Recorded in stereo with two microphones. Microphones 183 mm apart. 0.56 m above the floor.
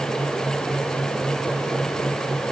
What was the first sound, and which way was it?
Only background noise.